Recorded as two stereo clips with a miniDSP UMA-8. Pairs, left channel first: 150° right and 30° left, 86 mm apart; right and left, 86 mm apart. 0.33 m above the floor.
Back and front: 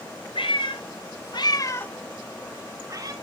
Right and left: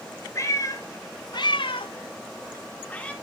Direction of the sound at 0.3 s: 145° right.